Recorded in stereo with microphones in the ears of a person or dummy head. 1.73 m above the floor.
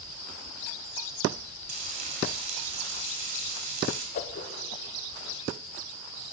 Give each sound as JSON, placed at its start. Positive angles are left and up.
{"t": 1.7, "sound": "frying", "side_deg": -60, "distance_m": 3.5}
{"t": 4.2, "sound": "a whoosh", "side_deg": 45, "distance_m": 0.9}